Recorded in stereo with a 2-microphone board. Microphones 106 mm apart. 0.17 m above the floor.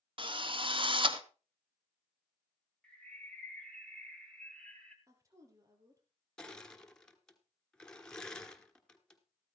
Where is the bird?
10° left (ahead or behind), 2 m.